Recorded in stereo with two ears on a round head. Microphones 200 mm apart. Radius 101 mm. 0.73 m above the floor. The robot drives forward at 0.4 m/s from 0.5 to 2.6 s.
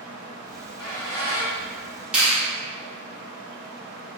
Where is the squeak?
25° left (ahead or behind), 1.4 m; by 2.0 s 20° left (ahead or behind), 1.9 m.